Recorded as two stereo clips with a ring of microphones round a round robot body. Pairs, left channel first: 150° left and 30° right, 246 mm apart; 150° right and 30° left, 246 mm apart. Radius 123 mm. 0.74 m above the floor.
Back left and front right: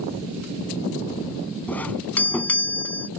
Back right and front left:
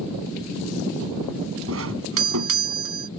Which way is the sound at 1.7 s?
65° left.